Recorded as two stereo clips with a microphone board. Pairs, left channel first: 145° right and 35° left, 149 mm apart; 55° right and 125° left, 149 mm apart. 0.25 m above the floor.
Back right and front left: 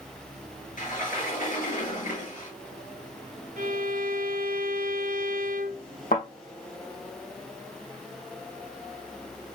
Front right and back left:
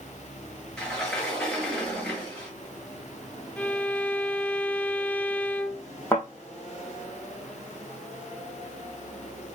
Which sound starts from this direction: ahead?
A violin, at 3.6 s.